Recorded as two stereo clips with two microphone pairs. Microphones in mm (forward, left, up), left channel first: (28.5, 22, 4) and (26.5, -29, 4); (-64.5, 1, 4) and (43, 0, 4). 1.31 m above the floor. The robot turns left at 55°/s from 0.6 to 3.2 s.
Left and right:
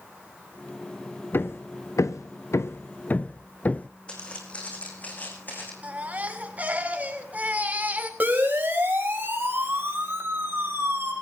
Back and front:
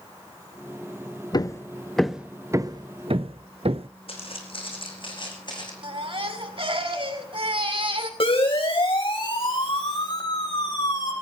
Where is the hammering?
130° left, 0.8 m; by 3.9 s 25° left, 0.8 m.